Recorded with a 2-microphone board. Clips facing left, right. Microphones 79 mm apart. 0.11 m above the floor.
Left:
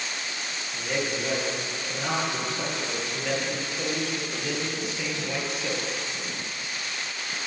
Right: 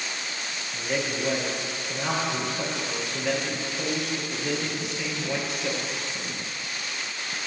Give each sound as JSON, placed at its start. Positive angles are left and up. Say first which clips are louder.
{"t": 0.7, "sound": "a man speaking", "louder": "right 1 dB", "side_deg": 0, "distance_m": 2.0}